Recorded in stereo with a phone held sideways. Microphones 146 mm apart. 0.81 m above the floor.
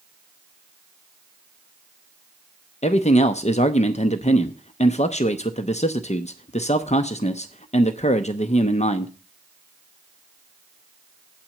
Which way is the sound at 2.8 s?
50° left (ahead or behind).